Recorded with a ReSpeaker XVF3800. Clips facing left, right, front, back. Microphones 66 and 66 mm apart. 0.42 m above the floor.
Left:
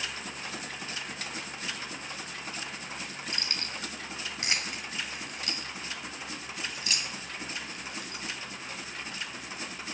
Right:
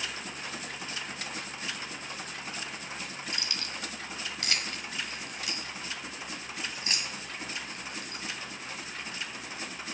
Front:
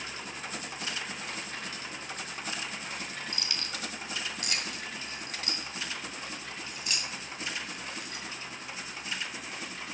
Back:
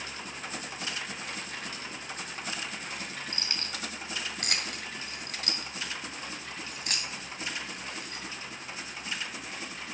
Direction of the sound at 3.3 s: 130° left.